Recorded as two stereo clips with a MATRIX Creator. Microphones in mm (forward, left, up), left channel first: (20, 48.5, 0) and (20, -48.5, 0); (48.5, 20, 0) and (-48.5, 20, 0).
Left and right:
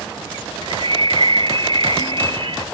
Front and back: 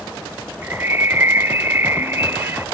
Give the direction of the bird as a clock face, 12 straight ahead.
4 o'clock.